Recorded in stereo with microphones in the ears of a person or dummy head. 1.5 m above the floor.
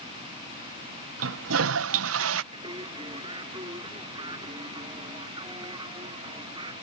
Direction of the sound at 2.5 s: 20° right (ahead or behind).